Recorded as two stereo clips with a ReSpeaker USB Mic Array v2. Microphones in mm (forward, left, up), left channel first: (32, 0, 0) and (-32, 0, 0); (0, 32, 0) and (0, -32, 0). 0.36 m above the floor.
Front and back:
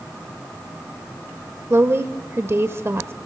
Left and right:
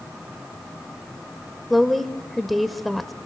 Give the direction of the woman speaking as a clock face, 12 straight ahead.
6 o'clock.